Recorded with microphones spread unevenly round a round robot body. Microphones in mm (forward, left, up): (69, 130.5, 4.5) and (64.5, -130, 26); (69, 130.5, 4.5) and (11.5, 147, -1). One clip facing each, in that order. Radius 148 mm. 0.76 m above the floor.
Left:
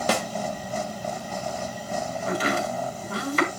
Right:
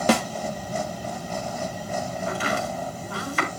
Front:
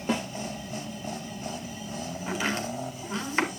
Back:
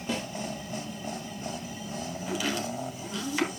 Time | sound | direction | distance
0.1 | a snare drum | 85° right | 1.0 m
2.3 | chopping | 40° left | 3.5 m